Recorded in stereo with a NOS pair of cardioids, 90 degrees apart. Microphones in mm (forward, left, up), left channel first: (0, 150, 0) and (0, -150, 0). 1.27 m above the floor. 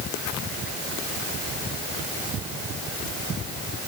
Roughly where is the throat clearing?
I don't hear throat clearing.